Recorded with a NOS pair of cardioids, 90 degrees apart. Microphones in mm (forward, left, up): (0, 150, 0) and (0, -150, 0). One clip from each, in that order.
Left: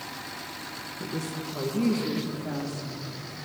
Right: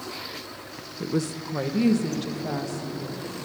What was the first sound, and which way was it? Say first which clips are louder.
A woman speaking: right 7 dB; 30° right.